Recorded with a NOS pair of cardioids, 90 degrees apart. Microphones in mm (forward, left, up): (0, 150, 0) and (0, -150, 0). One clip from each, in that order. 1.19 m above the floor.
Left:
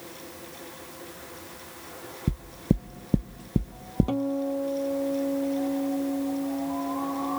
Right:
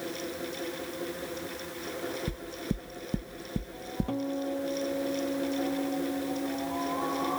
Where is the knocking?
40° left.